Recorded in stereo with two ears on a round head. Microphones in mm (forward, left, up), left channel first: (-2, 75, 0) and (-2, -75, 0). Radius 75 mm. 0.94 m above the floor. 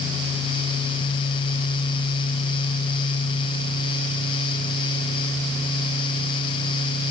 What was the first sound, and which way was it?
Only background noise.